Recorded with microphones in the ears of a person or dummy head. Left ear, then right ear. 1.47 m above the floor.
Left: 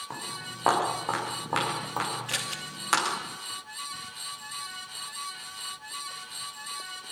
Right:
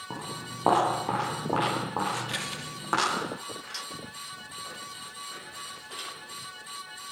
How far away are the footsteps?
About 7 m.